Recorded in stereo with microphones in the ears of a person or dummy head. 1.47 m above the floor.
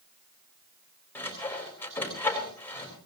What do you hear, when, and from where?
1.1 s sawing: 10° left (ahead or behind), 4 m